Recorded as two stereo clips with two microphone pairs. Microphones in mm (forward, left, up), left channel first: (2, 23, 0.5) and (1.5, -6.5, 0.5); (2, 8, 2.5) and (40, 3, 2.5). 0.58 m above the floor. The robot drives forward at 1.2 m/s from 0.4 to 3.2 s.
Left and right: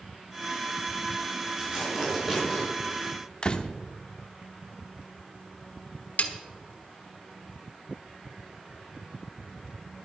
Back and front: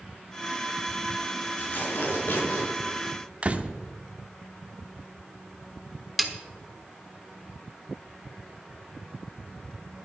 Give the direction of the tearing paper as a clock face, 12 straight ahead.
5 o'clock.